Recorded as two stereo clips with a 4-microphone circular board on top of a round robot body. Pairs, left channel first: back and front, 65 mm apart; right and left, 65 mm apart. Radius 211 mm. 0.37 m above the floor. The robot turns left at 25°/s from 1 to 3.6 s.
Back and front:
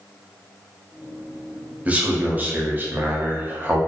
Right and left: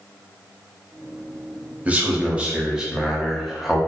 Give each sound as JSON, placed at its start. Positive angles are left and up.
{"t": 1.9, "sound": "a man speaking", "azimuth_deg": 45, "distance_m": 0.9}